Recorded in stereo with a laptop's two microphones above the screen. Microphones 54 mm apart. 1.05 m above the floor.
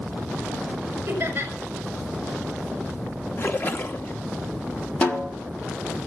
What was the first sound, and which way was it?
Laughter, 40° right (ahead or behind).